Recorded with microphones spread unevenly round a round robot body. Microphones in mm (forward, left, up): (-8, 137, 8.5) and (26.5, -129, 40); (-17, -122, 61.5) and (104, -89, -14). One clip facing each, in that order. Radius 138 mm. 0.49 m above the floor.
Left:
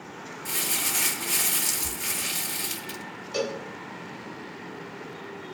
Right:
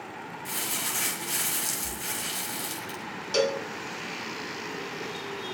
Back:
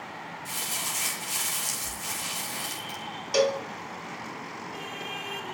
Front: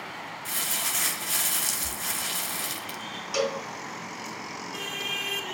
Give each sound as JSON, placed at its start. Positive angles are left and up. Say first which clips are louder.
{"t": 0.5, "sound": "crumpling", "louder": "left 3 dB, front 1 dB", "azimuth_deg": 20, "distance_m": 2.5}
{"t": 3.3, "sound": "a cowbell", "louder": "right 4 dB, back 4 dB", "azimuth_deg": -105, "distance_m": 3.0}